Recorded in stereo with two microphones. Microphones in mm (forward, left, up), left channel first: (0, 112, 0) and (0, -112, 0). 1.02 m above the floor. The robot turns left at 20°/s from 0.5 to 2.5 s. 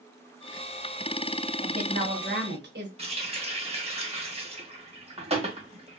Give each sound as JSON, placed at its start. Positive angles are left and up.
{"t": 1.6, "sound": "a woman speaking", "side_deg": -40, "distance_m": 1.0}
{"t": 3.0, "sound": "a running tap", "side_deg": -25, "distance_m": 0.9}